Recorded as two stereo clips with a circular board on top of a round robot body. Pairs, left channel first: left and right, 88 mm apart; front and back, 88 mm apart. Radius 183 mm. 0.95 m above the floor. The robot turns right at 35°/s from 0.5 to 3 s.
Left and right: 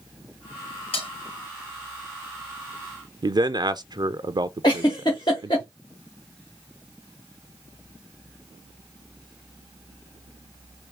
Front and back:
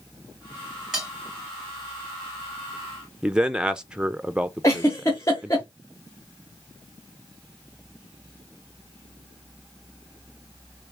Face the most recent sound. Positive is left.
turn(degrees=55)